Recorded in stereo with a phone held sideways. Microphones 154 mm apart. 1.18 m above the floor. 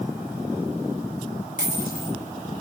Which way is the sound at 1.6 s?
60° left (ahead or behind).